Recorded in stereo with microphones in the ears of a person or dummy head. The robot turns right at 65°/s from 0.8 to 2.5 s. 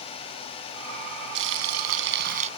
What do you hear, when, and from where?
1.4 s frying: 110° right; by 2.5 s 35° right